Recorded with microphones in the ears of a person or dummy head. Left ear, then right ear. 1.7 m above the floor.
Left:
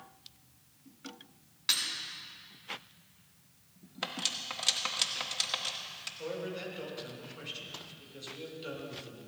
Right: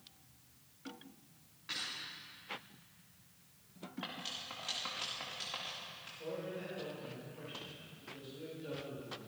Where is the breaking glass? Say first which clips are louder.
Left 11 dB; 60° left (ahead or behind), 4 m.